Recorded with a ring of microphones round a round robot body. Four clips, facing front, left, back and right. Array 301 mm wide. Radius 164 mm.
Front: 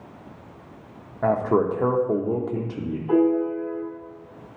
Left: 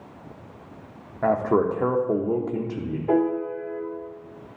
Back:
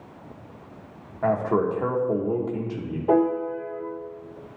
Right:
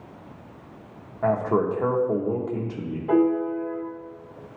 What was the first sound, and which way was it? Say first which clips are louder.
A man speaking: left 1 dB, front 2 dB; 50° left.